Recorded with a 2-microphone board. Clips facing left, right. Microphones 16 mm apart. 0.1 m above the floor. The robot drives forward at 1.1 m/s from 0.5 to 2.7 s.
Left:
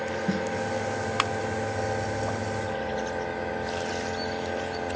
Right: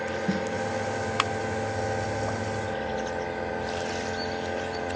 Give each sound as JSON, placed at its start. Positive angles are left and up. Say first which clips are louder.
{"t": 0.3, "sound": "a snare drum", "louder": "even", "side_deg": 0, "distance_m": 0.9}